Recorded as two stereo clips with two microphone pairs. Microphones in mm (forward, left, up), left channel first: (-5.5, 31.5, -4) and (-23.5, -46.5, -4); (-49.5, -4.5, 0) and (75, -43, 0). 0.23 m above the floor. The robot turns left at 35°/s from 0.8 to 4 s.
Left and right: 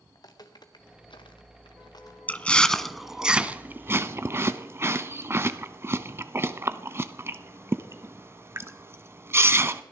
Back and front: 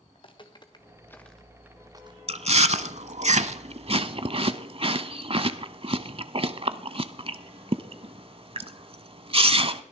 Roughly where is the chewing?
Ahead.